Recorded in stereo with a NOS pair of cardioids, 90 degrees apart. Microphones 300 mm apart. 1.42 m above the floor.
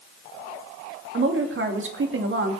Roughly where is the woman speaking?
Ahead right.